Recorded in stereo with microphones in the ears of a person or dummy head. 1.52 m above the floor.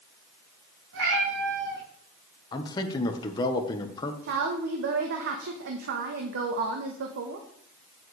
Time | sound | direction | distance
0.9 | a cat meowing | 75° right (ahead or behind) | 4.5 m
2.5 | a man speaking | 30° left (ahead or behind) | 1.3 m
4.2 | a woman speaking | 60° right (ahead or behind) | 1.2 m